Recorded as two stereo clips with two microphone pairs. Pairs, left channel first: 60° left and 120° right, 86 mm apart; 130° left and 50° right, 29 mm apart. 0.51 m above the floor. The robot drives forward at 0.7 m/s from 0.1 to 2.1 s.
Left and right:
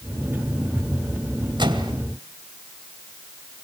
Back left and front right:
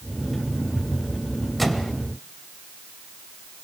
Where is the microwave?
140° right, 1.9 m; by 1.9 s 145° right, 2 m.